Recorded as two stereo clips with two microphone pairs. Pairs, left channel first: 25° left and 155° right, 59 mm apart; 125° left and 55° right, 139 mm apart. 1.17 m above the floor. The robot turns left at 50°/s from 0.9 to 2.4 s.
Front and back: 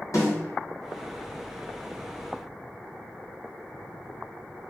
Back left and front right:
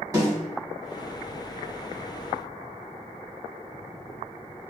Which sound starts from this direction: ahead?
A snare drum, at 0.1 s.